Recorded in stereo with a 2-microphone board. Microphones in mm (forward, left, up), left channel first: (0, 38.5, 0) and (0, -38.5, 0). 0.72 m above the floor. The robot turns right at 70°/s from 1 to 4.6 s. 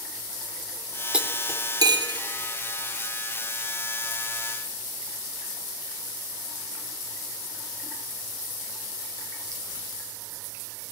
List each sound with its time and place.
1.1 s cutlery clinking: 10° right (ahead or behind), 1.0 m; by 2.2 s 85° right, 1.0 m